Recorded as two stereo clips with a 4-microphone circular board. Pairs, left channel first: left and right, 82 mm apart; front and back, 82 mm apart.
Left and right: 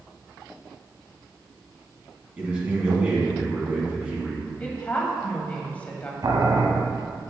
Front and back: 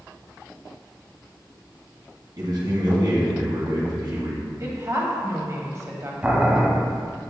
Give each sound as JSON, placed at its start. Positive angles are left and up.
{"t": 2.4, "sound": "a man speaking", "azimuth_deg": -160, "distance_m": 2.5}
{"t": 4.6, "sound": "a woman speaking", "azimuth_deg": 155, "distance_m": 1.4}
{"t": 6.2, "sound": "boiling", "azimuth_deg": -105, "distance_m": 1.1}